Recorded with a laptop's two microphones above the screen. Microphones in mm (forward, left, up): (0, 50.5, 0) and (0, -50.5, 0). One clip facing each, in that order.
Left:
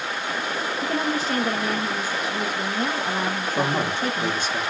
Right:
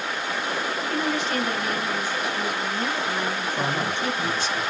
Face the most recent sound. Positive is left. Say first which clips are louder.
# left 4 dB
turn(degrees=50)  # may be behind; listen again after turning